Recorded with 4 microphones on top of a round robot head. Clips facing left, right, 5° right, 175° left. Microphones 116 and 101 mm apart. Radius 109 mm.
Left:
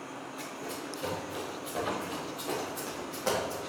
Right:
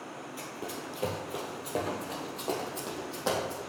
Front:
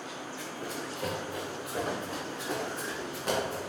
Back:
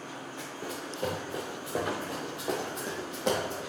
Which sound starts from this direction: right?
Running footsteps, at 0.4 s.